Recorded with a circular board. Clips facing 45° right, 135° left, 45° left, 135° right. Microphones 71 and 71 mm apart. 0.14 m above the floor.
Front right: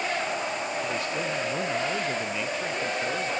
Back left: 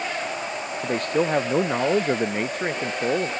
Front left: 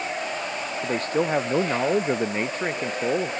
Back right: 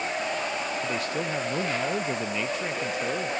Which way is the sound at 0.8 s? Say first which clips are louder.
Back left 6 dB, front left 5 dB; 95° left.